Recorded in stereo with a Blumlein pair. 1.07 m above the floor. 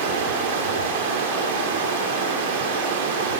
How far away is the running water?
About 2 m.